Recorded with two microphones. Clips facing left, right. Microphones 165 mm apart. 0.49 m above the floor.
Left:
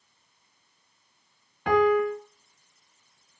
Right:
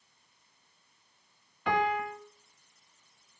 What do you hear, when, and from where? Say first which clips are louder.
1.7 s a piano: left 9 dB; 50° left (ahead or behind), 2.0 m